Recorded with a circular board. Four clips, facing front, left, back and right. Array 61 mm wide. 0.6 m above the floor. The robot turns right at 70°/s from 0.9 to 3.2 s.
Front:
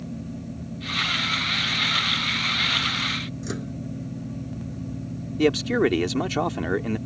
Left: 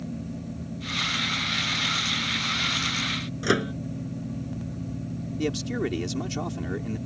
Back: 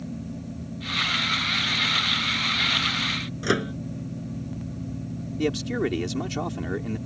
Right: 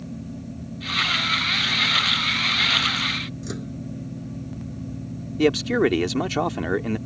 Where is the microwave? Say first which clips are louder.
Left 9 dB, back 7 dB; 125° left.